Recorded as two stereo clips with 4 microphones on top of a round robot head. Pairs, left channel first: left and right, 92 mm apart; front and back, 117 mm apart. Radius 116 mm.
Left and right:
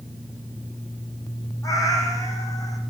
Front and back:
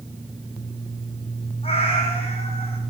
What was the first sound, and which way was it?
A cat meowing, 40° left.